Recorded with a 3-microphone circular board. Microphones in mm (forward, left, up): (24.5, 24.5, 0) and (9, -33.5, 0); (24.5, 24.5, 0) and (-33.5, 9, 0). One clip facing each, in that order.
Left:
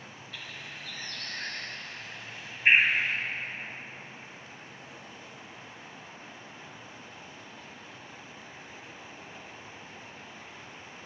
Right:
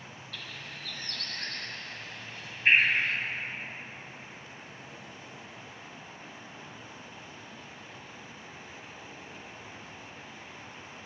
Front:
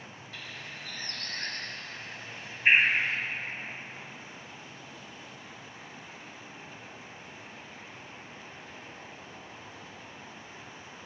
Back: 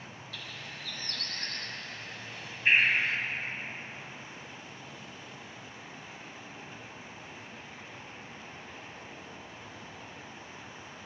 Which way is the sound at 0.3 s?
15° left.